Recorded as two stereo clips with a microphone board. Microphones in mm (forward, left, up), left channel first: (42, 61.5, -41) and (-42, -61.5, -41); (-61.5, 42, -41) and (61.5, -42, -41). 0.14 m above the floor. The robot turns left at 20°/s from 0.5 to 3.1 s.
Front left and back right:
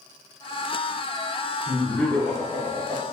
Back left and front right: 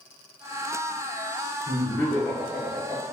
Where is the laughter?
125° left, 1.2 m; by 3.0 s 95° left, 1.2 m.